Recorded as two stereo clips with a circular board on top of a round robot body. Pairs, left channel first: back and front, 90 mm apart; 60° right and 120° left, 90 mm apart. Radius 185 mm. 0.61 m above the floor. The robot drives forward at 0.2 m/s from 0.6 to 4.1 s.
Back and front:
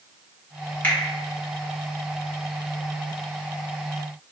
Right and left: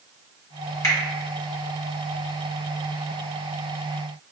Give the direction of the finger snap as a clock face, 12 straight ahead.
4 o'clock.